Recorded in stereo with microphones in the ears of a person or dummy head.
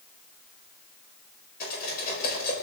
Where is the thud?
No thud in this recording.